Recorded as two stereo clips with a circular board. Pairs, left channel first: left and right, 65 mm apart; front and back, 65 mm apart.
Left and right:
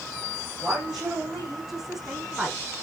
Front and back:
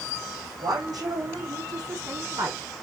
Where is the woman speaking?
Straight behind, 5.5 m; by 2.6 s 175° right, 7 m.